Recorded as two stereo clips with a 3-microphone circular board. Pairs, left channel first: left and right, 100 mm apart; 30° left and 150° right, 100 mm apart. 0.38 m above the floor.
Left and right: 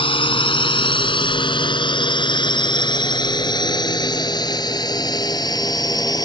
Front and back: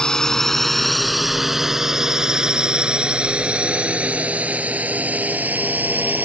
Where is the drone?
115° left; by 6.2 s 140° left.